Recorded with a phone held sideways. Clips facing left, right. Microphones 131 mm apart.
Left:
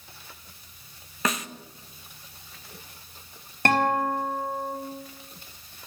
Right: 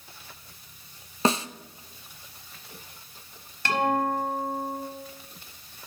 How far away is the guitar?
About 5 m.